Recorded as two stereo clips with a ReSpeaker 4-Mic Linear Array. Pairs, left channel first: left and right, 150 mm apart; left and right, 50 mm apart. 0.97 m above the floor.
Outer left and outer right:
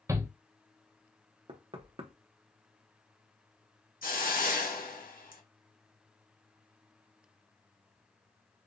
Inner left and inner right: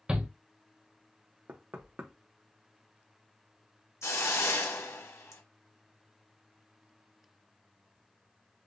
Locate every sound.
0.1 s a shout: 20° right (ahead or behind), 0.6 m
1.5 s knocking: 40° right (ahead or behind), 0.7 m
4.0 s a hiss: 70° left (ahead or behind), 0.9 m